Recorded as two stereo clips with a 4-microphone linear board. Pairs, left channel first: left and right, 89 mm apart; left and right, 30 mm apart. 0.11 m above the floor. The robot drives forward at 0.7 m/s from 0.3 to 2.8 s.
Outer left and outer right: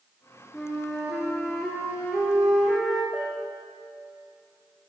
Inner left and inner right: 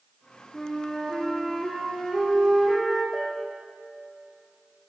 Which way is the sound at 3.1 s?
10° right (ahead or behind).